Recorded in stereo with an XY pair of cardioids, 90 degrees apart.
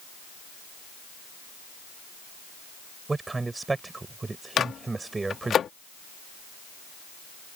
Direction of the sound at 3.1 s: 25° right.